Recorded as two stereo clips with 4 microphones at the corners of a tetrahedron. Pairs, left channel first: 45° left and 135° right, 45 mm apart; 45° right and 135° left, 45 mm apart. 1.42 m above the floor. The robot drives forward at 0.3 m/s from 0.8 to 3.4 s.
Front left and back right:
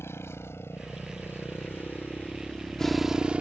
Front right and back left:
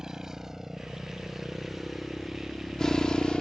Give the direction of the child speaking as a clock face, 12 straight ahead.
I don't hear a child speaking.